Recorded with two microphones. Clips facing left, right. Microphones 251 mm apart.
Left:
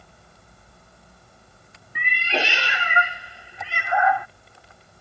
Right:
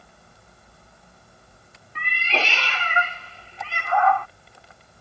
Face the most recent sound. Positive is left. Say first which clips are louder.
# left 2 dB
turn(degrees=15)  # may be behind; listen again after turning